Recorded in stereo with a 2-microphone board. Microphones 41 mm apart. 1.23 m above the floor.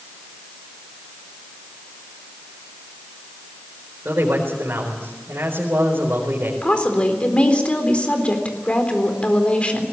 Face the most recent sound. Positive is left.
turn(degrees=30)  # may be behind; listen again after turning